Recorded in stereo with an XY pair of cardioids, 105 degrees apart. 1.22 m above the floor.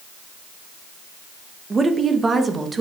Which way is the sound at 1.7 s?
30° right.